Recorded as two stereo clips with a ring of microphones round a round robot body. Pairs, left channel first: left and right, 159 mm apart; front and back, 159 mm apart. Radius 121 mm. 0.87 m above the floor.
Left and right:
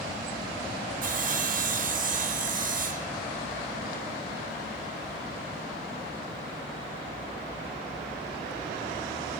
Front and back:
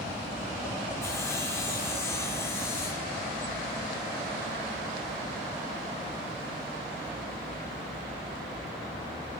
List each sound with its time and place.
1.0 s sawing: 75° right, 1.3 m